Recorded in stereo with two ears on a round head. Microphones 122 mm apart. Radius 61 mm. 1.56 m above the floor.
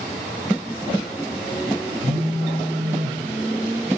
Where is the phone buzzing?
25° left (ahead or behind), 1.8 m.